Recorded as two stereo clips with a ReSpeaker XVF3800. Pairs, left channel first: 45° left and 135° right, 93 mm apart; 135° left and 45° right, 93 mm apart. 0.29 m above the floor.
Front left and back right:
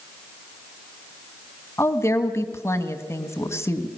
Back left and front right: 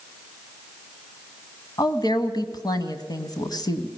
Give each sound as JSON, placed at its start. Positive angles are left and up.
{"t": 1.8, "sound": "a woman speaking", "azimuth_deg": 100, "distance_m": 1.7}